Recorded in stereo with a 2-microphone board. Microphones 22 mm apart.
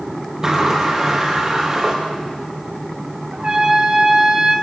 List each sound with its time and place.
0.4 s a sliding door: 30° right (ahead or behind), 5.5 m
3.3 s a trumpet: 35° right (ahead or behind), 4.5 m